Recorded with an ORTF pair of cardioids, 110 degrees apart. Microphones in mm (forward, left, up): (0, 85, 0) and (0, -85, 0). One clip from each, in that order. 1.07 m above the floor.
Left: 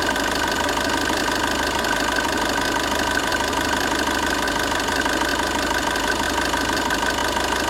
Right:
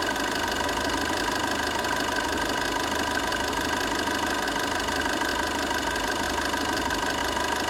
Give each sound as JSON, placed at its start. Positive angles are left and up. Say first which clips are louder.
{"t": 0.0, "sound": "an engine running", "louder": "left 5 dB", "azimuth_deg": 30, "distance_m": 1.0}